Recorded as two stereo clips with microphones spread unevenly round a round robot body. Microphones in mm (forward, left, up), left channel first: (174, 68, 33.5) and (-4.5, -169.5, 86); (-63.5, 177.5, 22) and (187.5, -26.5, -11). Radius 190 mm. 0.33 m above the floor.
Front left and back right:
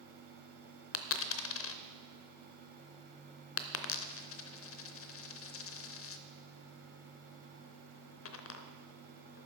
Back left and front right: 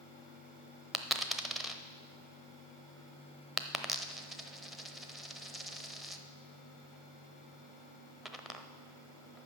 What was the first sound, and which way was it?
A dropped coin, 45° left.